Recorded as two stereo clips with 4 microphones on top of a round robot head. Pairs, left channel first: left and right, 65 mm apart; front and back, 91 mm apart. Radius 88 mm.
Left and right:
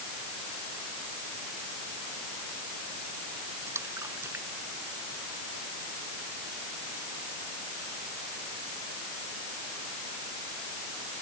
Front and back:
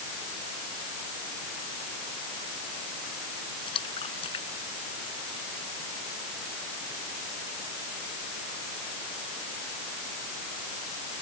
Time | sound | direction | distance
3.7 | a splash | 35° right | ?